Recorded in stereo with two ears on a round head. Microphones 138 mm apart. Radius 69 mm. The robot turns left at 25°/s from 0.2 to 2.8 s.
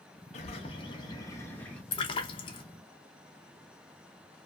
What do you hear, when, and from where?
0.3 s a bird: 45° left, 0.7 m; by 1.8 s 5° left, 0.7 m
1.9 s a splash: 35° left (ahead or behind), 0.5 m